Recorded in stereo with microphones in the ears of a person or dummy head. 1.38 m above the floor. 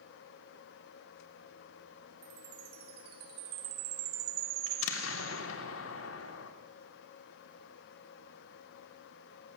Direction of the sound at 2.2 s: 55° right (ahead or behind).